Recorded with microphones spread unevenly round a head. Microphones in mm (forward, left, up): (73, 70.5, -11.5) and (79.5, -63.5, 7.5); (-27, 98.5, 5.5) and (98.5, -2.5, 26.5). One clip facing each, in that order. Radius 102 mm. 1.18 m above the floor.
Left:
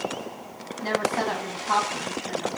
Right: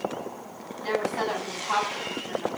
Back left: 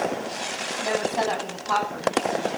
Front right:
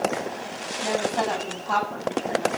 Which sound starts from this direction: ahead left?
A woman speaking, at 0.8 s.